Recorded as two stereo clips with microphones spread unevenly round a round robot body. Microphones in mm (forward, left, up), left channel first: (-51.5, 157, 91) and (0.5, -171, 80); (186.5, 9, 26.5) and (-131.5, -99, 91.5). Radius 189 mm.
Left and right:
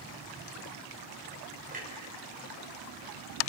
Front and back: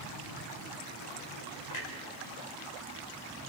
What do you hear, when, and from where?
1.7 s a clunk: 15° right, 4.5 m